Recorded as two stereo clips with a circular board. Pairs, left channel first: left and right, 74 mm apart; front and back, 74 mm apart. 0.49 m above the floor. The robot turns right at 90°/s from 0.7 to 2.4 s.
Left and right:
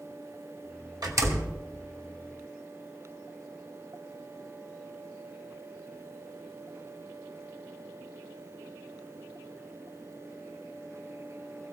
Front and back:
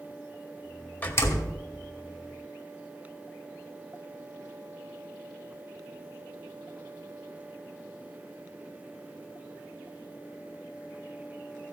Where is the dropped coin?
No dropped coin in this recording.